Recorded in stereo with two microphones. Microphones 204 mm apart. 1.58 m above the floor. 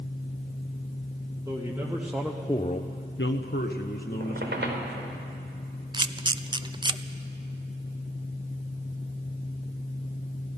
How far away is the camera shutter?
About 0.6 m.